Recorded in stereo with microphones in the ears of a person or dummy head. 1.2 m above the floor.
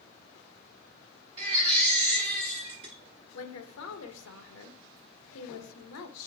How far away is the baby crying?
About 0.6 m.